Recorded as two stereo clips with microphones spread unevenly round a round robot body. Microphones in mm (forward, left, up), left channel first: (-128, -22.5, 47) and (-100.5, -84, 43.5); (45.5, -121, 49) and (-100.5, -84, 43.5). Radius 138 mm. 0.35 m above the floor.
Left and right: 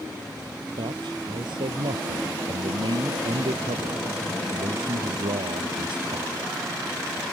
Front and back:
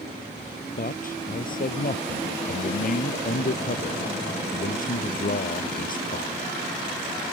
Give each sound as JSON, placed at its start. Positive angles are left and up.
{"t": 0.8, "sound": "a man speaking", "azimuth_deg": -45}